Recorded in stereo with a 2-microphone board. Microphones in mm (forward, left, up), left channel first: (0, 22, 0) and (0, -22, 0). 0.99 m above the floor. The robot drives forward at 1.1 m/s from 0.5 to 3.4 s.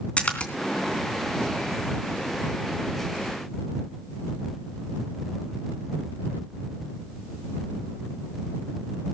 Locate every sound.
0.2 s a splash: 25° left (ahead or behind), 3 m